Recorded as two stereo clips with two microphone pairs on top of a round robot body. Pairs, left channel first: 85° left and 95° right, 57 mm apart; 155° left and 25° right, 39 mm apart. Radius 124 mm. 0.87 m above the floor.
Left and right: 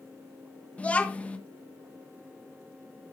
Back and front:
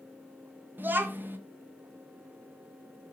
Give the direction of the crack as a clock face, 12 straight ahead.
No crack in this recording.